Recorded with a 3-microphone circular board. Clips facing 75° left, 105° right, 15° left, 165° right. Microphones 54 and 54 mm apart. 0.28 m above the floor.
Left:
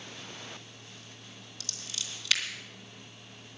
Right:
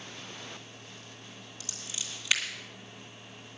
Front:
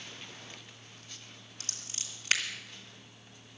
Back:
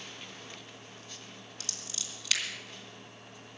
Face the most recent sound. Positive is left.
turn(degrees=-35)